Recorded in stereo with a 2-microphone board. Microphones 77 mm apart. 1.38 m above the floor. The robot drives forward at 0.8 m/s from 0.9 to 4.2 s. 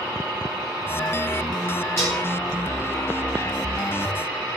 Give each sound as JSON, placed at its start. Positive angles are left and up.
{"t": 2.0, "sound": "dishes clattering", "side_deg": -5, "distance_m": 4.5}